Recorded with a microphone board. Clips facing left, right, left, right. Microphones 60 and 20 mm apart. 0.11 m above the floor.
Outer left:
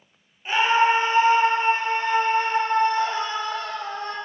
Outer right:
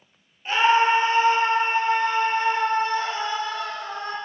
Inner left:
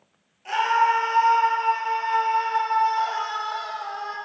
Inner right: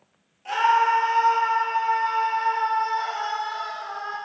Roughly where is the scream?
Centre.